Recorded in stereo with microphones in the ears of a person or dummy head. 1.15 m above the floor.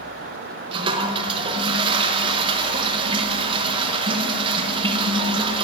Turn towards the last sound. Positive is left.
turn(degrees=-25)  # may be behind; listen again after turning